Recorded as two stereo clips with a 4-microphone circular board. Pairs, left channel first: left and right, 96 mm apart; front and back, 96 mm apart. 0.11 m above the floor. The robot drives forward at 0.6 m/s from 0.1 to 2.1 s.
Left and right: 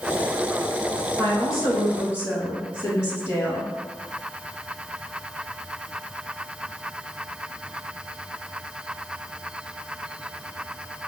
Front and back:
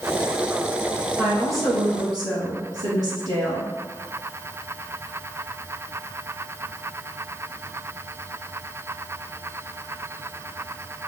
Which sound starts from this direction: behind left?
A woman speaking, at 1.2 s.